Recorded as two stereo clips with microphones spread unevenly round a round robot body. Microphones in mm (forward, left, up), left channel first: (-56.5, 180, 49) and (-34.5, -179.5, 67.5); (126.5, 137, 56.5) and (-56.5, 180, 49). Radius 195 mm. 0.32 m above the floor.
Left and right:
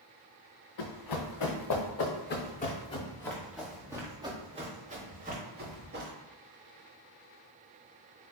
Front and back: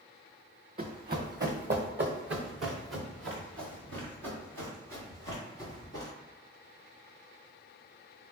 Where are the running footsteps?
120° left, 1.5 m; by 6.1 s 150° right, 2.5 m.